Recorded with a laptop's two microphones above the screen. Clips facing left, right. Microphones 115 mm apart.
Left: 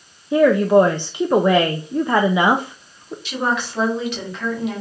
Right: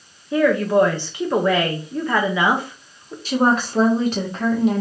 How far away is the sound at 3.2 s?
About 1.4 m.